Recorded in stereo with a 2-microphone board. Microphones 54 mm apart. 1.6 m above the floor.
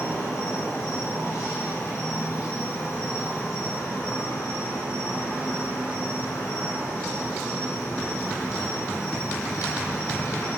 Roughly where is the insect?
Left.